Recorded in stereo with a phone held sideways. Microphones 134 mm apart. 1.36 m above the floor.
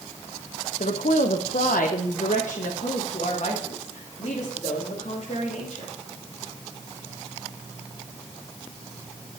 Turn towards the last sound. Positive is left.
turn(degrees=50)  # may be behind; listen again after turning